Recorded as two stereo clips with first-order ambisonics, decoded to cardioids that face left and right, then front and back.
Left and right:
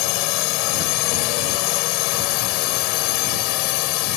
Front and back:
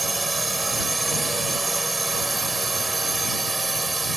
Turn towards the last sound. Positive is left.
turn(degrees=95)